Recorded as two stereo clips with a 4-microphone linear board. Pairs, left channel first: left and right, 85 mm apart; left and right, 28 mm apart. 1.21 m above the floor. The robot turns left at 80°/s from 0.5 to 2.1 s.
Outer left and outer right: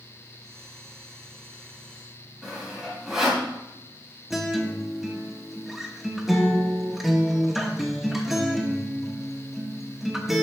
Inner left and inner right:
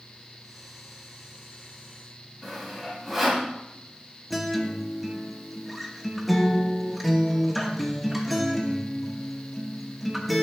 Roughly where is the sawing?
Centre.